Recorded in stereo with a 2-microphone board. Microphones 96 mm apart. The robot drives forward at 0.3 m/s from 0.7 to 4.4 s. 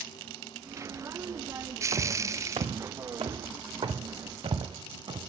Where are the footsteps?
70° right (ahead or behind), 1.0 m; by 5.2 s 65° right (ahead or behind), 2.5 m.